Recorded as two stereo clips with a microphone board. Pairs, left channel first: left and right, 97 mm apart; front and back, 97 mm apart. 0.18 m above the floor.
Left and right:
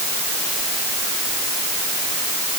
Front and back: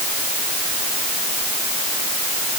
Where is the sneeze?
I don't hear a sneeze.